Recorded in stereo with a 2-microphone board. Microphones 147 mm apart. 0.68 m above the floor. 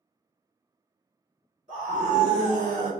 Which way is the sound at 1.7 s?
55° right (ahead or behind).